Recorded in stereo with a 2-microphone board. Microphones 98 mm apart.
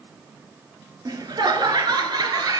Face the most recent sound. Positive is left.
turn(degrees=-40)  # may be behind; listen again after turning